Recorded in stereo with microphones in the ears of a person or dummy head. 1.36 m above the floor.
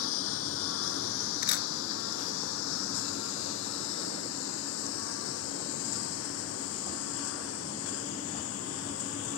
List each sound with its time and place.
0.0 s a lawn mower: 85° left
1.4 s a camera shutter: 60° left (ahead or behind)